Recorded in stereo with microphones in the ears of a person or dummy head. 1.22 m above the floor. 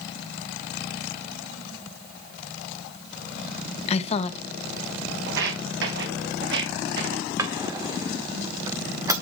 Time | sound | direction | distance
3.9 | a woman speaking | 35° left (ahead or behind) | 1.1 m
5.3 | footsteps | 70° right (ahead or behind) | 3.5 m
7.4 | a drawer | 15° right (ahead or behind) | 1.9 m